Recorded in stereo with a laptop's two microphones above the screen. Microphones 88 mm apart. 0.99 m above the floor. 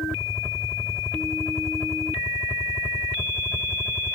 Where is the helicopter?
5° left (ahead or behind).